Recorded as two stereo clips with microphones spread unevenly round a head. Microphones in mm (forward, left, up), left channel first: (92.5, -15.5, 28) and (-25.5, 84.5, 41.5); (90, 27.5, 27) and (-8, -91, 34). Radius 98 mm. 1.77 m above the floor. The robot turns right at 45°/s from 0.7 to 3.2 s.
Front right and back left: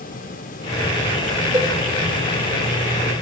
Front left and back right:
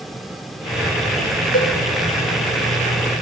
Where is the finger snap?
I don't hear a finger snap.